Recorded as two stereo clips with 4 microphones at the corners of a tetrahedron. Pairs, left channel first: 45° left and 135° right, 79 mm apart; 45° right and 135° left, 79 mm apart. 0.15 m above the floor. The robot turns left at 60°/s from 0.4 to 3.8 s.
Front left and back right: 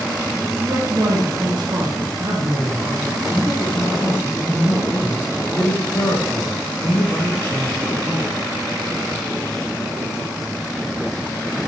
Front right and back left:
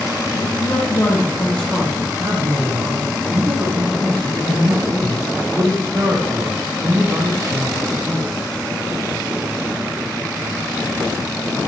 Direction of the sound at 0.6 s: 65° right.